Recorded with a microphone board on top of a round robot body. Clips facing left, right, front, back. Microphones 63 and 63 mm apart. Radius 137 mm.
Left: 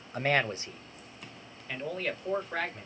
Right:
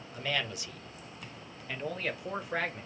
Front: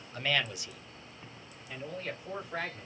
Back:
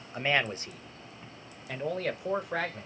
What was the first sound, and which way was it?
A man speaking, 110° left.